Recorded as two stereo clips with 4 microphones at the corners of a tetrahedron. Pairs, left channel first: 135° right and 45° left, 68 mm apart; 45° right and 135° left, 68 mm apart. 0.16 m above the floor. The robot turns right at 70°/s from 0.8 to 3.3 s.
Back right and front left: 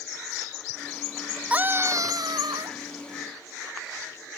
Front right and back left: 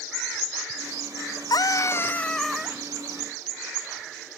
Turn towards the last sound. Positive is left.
turn(degrees=100)